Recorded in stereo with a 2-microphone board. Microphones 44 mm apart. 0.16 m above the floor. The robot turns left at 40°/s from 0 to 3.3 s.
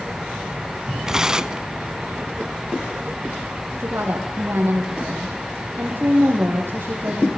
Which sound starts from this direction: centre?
Tearing paper, at 1.1 s.